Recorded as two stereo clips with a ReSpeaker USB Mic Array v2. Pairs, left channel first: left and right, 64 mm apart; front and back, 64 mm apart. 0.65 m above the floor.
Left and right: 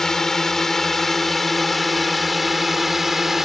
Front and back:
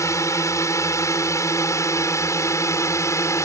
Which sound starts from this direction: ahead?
A drone, at 0.0 s.